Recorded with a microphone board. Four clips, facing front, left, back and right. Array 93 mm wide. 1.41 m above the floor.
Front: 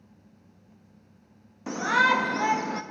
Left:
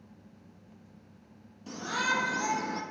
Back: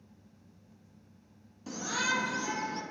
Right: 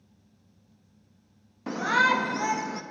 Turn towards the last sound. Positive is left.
turn(degrees=-5)